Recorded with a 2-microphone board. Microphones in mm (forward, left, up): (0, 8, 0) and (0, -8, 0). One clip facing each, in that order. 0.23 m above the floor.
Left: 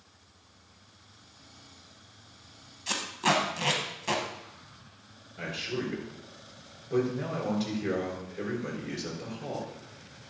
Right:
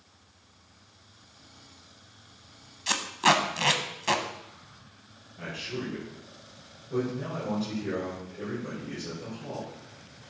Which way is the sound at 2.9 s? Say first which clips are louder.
Right 4 dB; 25° right (ahead or behind).